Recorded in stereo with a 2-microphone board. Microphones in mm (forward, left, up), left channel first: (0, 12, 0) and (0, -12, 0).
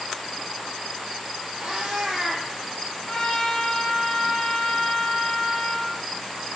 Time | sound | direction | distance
1.6 | a cat meowing | 55° right (ahead or behind) | 0.8 m
3.1 | a trumpet | 45° left (ahead or behind) | 0.6 m